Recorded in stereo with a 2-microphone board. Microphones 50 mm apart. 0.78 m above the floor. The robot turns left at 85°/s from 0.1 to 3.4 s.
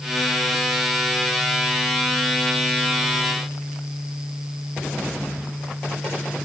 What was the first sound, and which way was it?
Only background noise.